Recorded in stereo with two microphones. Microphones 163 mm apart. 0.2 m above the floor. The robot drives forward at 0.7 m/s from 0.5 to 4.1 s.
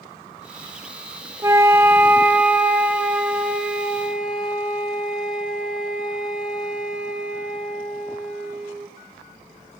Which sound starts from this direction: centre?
A flute, at 1.4 s.